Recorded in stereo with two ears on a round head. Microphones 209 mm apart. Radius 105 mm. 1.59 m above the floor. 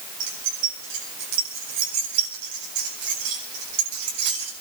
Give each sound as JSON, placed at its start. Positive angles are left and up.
{"t": 0.2, "sound": "keys jangling", "side_deg": -55, "distance_m": 8.0}